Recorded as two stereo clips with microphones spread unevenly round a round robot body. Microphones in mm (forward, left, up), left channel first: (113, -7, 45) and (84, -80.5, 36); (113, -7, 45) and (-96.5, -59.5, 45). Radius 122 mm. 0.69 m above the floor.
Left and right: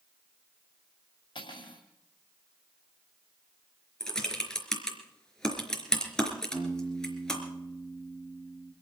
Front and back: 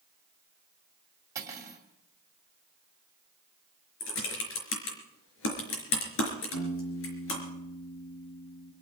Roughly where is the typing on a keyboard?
Ahead.